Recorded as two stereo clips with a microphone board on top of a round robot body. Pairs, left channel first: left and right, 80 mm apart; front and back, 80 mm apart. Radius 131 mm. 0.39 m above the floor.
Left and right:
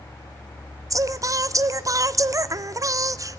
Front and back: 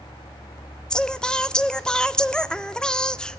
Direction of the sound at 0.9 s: 75° right.